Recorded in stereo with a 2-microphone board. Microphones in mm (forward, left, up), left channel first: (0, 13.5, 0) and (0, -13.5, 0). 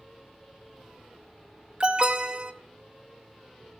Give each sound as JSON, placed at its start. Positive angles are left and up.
{"t": 1.8, "sound": "an alarm", "side_deg": -30, "distance_m": 2.0}